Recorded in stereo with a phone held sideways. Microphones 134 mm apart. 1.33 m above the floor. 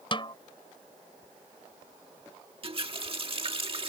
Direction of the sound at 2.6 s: 40° right (ahead or behind).